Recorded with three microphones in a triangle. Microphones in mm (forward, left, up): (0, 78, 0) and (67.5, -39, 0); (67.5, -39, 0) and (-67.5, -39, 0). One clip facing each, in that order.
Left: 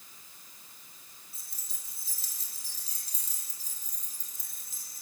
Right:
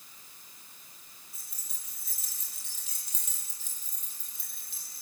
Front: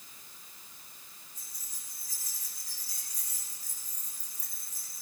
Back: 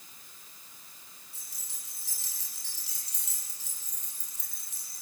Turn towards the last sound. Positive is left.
turn(degrees=165)